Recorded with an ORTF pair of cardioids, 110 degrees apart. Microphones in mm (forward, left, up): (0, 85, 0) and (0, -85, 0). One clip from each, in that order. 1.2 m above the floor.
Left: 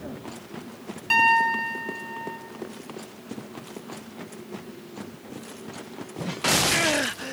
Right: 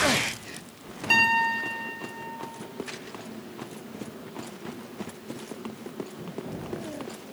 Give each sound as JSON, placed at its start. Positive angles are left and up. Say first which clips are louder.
{"t": 1.1, "sound": "a piano", "louder": "left 2 dB", "azimuth_deg": 0, "distance_m": 0.6}